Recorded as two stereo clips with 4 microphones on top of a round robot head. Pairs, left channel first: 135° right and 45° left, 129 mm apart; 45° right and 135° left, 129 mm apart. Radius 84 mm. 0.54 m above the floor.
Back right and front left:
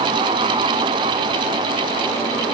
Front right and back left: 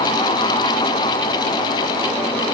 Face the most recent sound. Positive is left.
No sound to turn to.